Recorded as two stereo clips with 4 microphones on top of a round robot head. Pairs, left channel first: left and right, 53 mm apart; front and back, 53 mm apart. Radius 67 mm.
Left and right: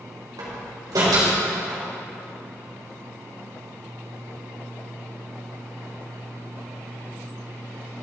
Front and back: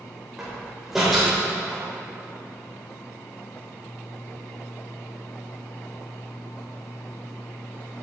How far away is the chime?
I don't hear a chime.